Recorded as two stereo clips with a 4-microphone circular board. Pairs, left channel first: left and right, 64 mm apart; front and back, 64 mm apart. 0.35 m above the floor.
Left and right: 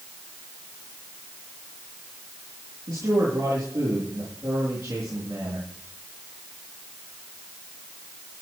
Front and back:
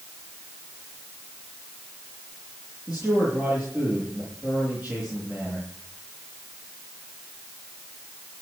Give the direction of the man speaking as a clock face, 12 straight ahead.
3 o'clock.